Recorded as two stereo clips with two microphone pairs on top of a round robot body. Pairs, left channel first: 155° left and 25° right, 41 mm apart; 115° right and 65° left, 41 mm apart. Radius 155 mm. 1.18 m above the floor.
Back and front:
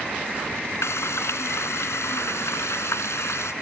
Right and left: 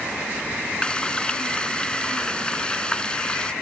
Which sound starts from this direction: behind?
Frying, at 0.8 s.